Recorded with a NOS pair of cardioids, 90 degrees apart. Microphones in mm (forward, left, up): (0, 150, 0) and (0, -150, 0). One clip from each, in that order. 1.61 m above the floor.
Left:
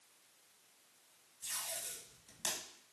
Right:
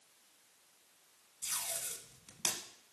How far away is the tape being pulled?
About 1.4 m.